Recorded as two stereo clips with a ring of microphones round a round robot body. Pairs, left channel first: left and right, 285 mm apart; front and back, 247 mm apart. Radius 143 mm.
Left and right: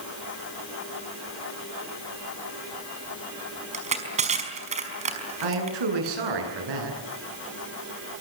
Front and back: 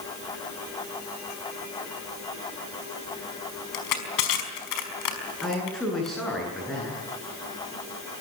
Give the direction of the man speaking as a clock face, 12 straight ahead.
3 o'clock.